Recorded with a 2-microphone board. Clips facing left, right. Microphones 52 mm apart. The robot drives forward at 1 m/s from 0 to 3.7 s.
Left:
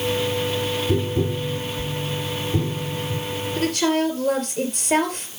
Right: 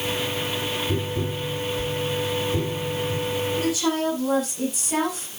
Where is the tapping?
25° left (ahead or behind), 3.5 m; by 3.2 s 15° left (ahead or behind), 6 m.